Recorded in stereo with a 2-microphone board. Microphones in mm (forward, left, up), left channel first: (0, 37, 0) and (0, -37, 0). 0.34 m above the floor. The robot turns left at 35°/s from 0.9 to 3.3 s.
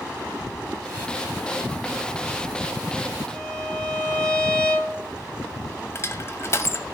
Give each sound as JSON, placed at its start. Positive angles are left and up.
{"t": 3.3, "sound": "a violin", "side_deg": -45, "distance_m": 7.5}
{"t": 6.0, "sound": "crushing", "side_deg": 35, "distance_m": 1.0}